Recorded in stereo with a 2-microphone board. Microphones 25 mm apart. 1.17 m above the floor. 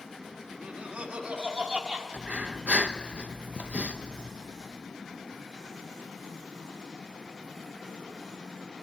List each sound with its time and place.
0.5 s laughter: 60° right (ahead or behind), 1.6 m; by 2.0 s 50° right (ahead or behind), 2.5 m
2.1 s breathing: 85° right, 0.8 m